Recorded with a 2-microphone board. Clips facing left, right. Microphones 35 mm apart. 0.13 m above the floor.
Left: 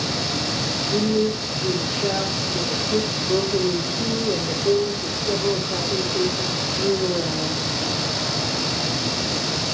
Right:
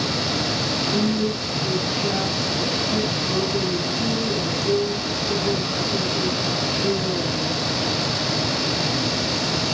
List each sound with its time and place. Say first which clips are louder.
0.9 s a woman speaking: left 4 dB; 60° left (ahead or behind), 3.5 m